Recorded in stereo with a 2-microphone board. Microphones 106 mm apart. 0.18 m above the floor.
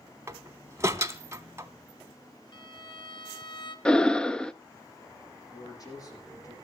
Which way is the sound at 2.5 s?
50° left (ahead or behind).